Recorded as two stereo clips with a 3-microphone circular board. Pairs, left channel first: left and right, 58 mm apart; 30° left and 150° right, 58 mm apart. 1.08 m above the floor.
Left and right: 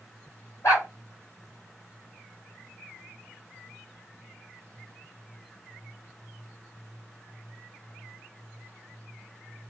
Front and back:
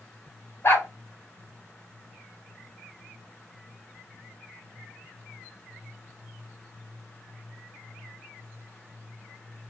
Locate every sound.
0.6 s a dog barking: 75° left, 2.0 m